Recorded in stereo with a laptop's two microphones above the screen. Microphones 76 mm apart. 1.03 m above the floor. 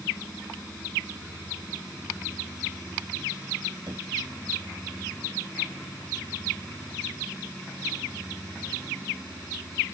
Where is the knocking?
60° right (ahead or behind).